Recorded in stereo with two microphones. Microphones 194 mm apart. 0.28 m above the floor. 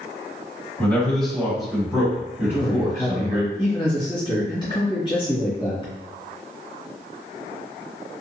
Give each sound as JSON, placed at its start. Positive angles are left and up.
{"t": 0.8, "sound": "a man speaking", "side_deg": 5, "distance_m": 1.8}
{"t": 2.4, "sound": "a man speaking", "side_deg": 25, "distance_m": 1.1}